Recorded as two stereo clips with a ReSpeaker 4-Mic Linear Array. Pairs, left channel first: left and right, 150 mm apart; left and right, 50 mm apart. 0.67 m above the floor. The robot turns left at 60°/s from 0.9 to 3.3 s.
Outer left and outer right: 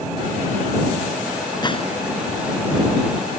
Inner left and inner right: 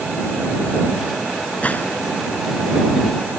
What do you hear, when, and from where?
1.6 s a gunshot: 30° left (ahead or behind); by 2.0 s 50° left (ahead or behind)